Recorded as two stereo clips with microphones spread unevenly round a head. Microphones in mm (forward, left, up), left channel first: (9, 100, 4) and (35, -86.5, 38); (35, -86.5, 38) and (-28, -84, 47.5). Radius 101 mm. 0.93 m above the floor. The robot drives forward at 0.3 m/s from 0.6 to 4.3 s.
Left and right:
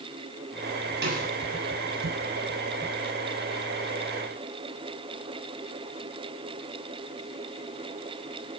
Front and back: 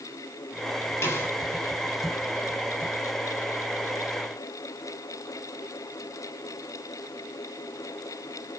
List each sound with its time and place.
1.0 s a snare drum: 50° right, 7.5 m